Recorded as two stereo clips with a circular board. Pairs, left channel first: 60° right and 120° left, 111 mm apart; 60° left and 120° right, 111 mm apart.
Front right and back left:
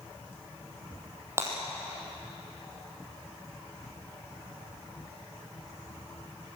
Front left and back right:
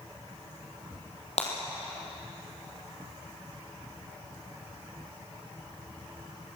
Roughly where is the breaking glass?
Ahead left.